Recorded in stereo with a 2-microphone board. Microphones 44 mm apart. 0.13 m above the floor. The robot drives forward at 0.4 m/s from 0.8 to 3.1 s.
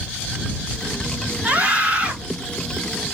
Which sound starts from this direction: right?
A scream, at 1.4 s.